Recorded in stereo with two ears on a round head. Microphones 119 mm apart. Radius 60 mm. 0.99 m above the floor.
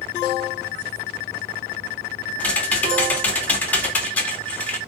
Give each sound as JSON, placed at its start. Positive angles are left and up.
{"t": 2.4, "sound": "typing on a keyboard", "side_deg": 10, "distance_m": 2.5}